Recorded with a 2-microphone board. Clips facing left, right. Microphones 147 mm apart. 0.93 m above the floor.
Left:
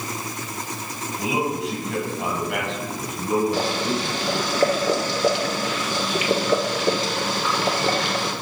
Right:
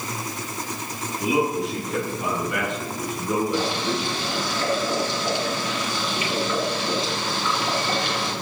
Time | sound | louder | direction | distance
1.2 | a man speaking | right 2 dB | 85° left | 7.5 m
3.5 | boiling | left 1 dB | 80° left | 2.5 m